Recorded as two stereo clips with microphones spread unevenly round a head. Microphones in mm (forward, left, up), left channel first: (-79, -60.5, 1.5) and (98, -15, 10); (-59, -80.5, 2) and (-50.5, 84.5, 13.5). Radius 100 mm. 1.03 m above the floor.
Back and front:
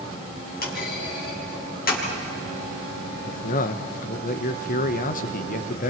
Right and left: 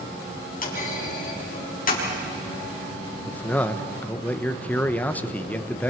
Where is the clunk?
130° right, 5.5 m.